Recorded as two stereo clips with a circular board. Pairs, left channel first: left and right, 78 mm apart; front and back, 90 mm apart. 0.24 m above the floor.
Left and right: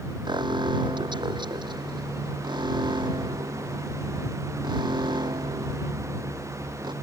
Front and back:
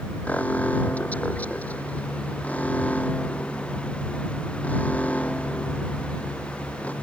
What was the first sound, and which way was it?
An alarm, 75° right.